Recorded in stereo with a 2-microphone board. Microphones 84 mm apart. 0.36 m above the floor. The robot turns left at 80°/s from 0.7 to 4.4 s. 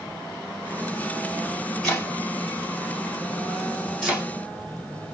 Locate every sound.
1.8 s chopping: 5° left (ahead or behind), 2.5 m; by 4.3 s 20° right (ahead or behind), 2.5 m